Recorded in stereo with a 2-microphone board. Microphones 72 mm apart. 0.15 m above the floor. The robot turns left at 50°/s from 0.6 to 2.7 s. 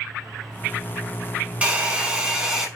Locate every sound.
1.6 s a hair dryer: 20° right (ahead or behind), 0.9 m; by 2.7 s 10° right (ahead or behind), 0.9 m